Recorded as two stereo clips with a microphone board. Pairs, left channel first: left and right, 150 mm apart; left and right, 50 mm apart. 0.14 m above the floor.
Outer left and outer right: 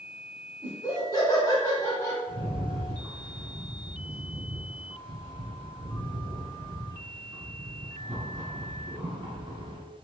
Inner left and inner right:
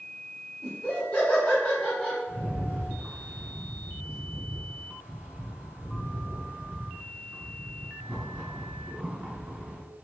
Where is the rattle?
35° right (ahead or behind), 2.0 m.